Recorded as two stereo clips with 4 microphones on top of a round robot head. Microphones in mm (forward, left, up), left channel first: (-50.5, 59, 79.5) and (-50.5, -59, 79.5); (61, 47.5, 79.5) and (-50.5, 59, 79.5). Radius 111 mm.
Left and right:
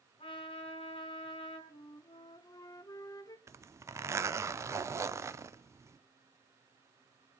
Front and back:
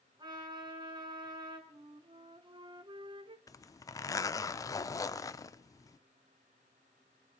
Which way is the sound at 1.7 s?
145° left.